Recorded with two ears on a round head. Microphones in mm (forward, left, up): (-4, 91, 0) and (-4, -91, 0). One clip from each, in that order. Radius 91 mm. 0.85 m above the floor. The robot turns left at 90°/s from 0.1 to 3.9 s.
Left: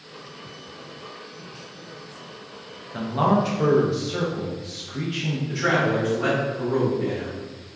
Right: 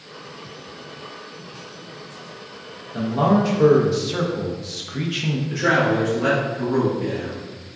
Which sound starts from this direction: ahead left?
A man speaking, at 2.9 s.